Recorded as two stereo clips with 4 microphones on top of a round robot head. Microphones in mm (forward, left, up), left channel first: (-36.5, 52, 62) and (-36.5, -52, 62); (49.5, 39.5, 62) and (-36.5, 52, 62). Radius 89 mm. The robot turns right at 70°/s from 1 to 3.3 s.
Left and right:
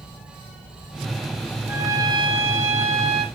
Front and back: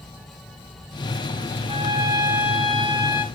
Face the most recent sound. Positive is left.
turn(degrees=-50)